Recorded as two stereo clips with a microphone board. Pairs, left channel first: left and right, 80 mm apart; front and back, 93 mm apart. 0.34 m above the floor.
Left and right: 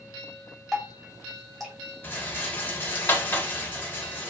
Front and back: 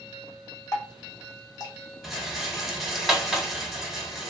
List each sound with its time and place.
0.7 s dripping: straight ahead, 1.1 m
2.0 s a rattle: 100° left, 0.7 m